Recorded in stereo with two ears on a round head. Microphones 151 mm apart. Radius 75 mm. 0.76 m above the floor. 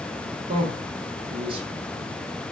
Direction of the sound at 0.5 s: 30° right (ahead or behind).